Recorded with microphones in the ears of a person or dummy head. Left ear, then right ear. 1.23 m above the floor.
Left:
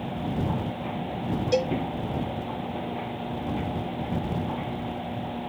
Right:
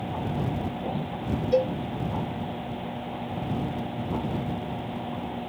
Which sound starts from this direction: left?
A cowbell, at 1.5 s.